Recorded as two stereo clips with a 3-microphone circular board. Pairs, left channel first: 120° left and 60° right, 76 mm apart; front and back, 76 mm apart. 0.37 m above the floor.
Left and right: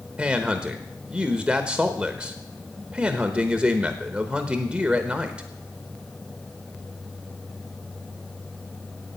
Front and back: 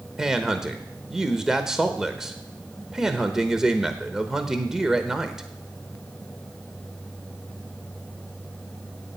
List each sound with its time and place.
0.2 s a man speaking: 110° right, 0.9 m